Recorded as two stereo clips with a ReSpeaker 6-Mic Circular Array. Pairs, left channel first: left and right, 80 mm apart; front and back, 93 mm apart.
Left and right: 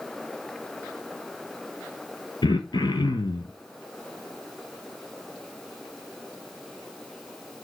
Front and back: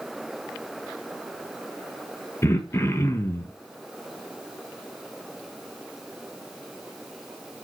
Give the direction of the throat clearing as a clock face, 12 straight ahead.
10 o'clock.